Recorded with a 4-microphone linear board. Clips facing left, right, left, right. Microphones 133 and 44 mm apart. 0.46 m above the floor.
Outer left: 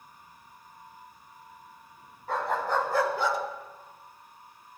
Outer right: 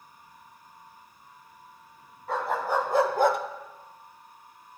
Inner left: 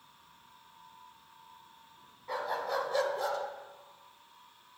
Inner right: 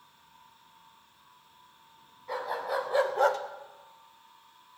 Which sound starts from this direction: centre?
A dog barking, at 2.3 s.